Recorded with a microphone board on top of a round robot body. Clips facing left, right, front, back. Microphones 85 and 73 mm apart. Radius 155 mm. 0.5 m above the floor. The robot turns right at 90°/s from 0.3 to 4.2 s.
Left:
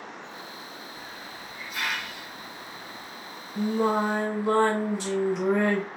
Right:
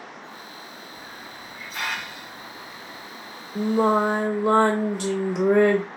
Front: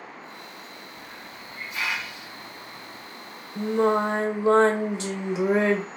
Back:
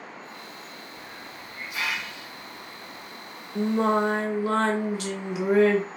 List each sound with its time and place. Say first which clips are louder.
0.9 s a hiss: right 1 dB, even; 175° right, 1.5 m; by 3.1 s 15° left, 1.5 m
3.5 s singing: right 4 dB, front 1 dB; 120° right, 0.6 m; by 5.8 s 60° right, 0.6 m